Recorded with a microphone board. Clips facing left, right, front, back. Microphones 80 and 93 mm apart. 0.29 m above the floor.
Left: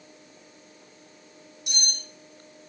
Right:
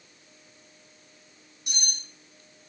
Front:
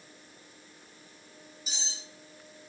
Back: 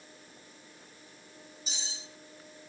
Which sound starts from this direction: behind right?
Cutlery clinking, at 1.7 s.